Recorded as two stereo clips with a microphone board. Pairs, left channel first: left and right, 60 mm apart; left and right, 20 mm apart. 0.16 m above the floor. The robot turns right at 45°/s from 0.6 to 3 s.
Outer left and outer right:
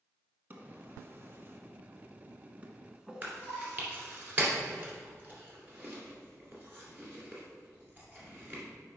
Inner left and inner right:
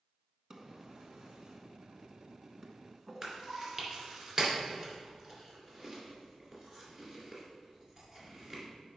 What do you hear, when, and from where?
0.5 s a drawer: 30° right (ahead or behind), 1.0 m; by 3.7 s 15° right (ahead or behind), 1.0 m
3.2 s chewing: 35° right (ahead or behind), 2.5 m